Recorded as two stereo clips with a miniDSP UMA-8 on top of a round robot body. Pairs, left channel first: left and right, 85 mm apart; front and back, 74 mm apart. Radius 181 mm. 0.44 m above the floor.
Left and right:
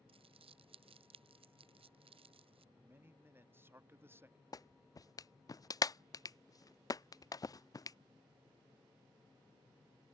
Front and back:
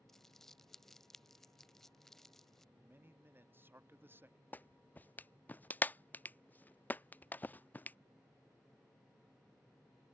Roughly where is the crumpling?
Right.